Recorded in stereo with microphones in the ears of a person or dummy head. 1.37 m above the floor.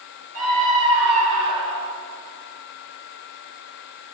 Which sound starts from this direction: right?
A scream, at 0.3 s.